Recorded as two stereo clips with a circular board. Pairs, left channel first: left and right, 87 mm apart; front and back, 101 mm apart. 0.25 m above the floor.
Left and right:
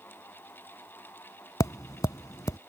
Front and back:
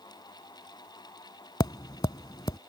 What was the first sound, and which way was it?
Tapping, 45° left.